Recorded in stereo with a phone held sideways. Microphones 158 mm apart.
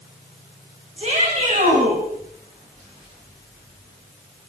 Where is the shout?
45° right (ahead or behind), 6.5 m; by 2.0 s 50° right (ahead or behind), 7 m.